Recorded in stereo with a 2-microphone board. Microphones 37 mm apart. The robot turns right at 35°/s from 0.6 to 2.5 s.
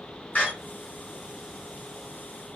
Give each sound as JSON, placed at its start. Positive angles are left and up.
{"t": 0.3, "sound": "a door slam", "side_deg": 45, "distance_m": 2.0}